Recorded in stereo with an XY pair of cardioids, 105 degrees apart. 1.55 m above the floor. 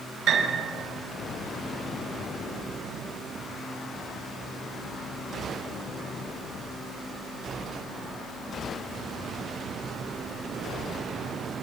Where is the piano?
65° right, 6.5 m.